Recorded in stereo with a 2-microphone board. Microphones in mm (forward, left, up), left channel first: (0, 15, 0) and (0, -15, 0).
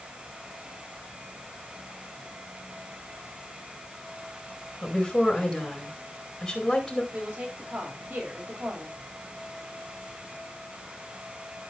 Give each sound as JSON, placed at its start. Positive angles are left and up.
{"t": 4.8, "sound": "a woman speaking", "side_deg": 15, "distance_m": 4.0}
{"t": 7.1, "sound": "a woman speaking", "side_deg": -80, "distance_m": 5.0}